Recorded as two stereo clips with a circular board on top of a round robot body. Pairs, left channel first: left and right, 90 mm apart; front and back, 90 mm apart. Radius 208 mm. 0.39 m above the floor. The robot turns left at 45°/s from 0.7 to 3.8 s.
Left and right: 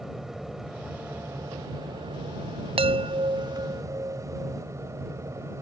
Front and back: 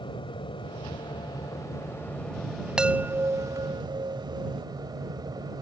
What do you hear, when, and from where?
0.0 s an aircraft: 5° right; by 5.6 s 145° right
2.8 s a chime: 95° right; by 4.6 s 145° right